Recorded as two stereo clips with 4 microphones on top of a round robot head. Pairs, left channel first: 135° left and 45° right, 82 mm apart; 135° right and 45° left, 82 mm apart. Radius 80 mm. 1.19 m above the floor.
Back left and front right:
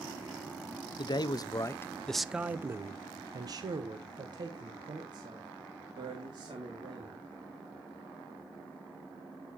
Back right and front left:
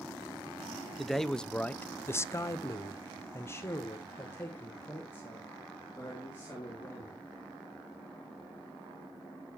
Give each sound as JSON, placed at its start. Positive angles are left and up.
{"t": 1.0, "sound": "a man speaking", "azimuth_deg": 135, "distance_m": 0.7}